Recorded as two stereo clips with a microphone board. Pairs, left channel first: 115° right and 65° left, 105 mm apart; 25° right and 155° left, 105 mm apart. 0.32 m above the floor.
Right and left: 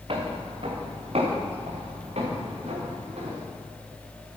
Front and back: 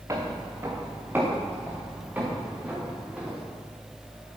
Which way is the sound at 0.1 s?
100° left.